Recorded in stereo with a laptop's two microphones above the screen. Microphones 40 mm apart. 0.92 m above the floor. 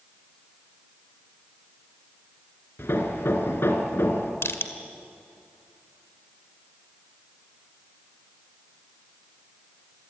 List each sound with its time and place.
2.8 s hammering: 70° left (ahead or behind), 3 m
4.4 s crushing: 85° left, 1.8 m